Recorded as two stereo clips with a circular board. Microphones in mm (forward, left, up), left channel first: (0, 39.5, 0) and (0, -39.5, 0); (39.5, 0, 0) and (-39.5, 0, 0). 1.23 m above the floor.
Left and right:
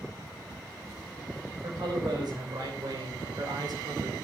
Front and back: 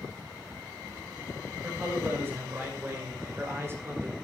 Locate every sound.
1.6 s a man speaking: 115° right, 7 m; by 4.1 s 120° right, 5 m